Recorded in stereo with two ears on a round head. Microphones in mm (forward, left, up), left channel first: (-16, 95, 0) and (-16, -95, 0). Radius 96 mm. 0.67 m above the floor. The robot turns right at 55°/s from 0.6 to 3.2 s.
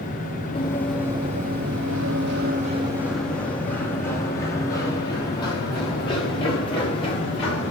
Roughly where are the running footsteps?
Left.